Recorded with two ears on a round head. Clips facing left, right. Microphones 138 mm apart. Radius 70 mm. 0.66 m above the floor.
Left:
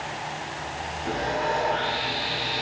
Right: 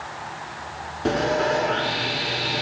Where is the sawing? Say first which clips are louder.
Right 6 dB; 75° right (ahead or behind), 1.5 m.